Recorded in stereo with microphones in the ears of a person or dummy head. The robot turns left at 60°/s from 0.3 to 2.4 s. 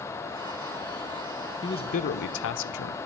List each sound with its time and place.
1.6 s a man speaking: 160° left, 0.5 m; by 3.0 s 115° left, 0.5 m